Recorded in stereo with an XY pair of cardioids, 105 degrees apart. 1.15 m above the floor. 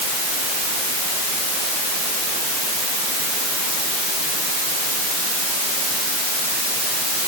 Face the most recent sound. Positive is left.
No sound to turn to.